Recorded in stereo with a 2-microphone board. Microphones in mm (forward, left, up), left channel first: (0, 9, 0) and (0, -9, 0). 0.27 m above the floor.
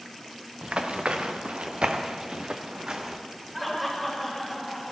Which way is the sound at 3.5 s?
10° left (ahead or behind).